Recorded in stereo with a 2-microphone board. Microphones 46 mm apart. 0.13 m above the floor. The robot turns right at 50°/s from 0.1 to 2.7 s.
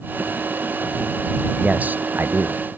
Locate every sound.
1.6 s a man speaking: 150° right; by 2.6 s 100° right